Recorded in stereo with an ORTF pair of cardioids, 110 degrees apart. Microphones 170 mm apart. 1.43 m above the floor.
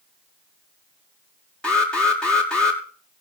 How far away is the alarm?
About 6.5 m.